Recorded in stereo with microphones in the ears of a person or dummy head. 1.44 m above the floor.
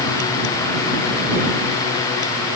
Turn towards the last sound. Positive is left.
No sound to turn to.